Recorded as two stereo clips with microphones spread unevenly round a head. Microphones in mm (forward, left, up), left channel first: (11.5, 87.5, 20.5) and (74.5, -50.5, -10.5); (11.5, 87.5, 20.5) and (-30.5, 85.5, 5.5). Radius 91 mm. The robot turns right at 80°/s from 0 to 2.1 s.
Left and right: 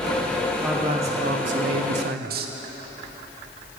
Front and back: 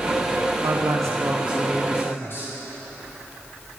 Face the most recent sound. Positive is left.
turn(degrees=-40)